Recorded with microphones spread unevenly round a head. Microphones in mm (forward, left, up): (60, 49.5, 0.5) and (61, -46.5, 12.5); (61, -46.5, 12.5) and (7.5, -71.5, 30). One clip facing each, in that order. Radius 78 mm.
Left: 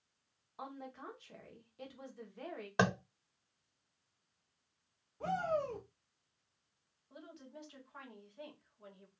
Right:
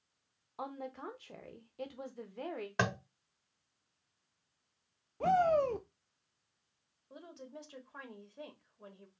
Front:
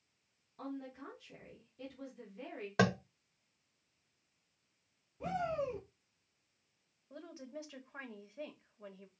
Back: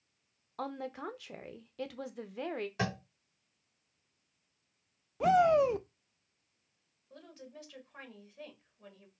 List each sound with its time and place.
0.6 s a woman speaking: 155° right, 0.7 m
2.8 s tapping: 20° left, 1.3 m
5.2 s a shout: 150° right, 0.6 m
7.1 s a woman speaking: 35° right, 1.7 m